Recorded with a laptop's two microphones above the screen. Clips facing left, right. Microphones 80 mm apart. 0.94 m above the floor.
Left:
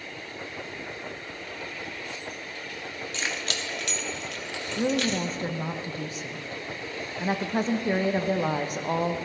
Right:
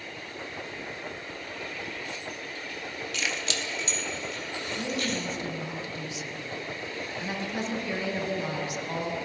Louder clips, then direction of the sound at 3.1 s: Even; 30° left (ahead or behind).